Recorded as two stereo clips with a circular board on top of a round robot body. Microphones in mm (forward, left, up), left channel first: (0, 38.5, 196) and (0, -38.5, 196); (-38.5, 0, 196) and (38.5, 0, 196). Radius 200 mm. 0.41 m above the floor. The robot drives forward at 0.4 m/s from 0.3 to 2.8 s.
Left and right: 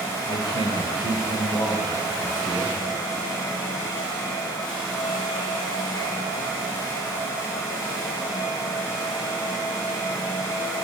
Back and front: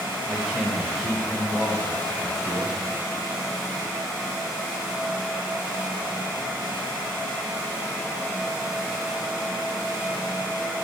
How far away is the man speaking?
About 2.5 m.